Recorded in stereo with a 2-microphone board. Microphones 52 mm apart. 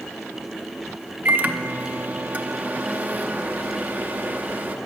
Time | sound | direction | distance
1.2 | a microwave | 30° right (ahead or behind) | 0.5 m